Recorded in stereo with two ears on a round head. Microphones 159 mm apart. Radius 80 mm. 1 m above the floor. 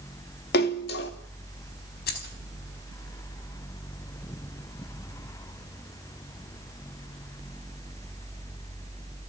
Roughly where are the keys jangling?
Left.